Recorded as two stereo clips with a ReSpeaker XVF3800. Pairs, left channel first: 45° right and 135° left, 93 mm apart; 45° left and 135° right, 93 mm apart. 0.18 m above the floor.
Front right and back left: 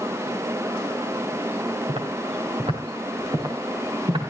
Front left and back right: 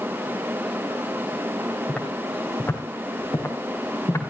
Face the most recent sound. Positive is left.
turn(degrees=105)